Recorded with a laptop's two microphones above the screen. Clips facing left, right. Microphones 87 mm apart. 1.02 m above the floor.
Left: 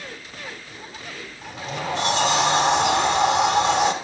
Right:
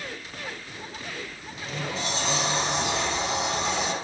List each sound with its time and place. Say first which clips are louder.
1.4 s a sliding door: left 6 dB; 75° left (ahead or behind), 2.5 m